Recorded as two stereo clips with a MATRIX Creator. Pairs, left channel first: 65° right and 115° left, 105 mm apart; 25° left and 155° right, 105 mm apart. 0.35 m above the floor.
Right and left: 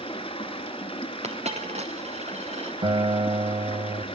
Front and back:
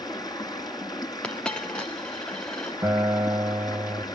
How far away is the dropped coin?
About 2 m.